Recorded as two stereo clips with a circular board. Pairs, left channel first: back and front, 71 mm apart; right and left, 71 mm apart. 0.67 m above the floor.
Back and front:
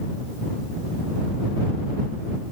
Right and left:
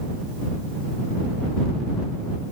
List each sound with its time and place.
Only background noise.